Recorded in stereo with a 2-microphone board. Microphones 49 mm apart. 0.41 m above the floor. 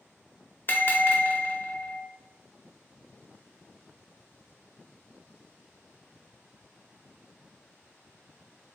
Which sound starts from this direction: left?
A bell, at 0.7 s.